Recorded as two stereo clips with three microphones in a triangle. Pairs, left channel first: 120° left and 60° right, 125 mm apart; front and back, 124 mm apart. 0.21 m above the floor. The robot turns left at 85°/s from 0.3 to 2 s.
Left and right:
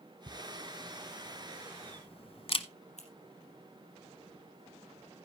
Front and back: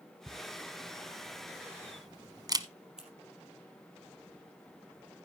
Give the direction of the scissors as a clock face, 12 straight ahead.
9 o'clock.